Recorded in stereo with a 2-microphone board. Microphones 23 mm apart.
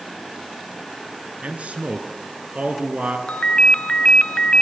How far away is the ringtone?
About 0.9 m.